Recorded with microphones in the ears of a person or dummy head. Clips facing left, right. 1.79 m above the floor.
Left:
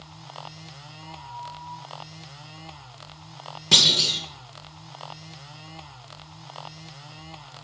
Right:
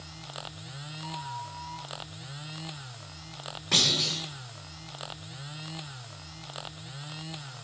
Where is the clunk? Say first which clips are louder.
Left 3 dB; 50° left (ahead or behind), 1.3 m.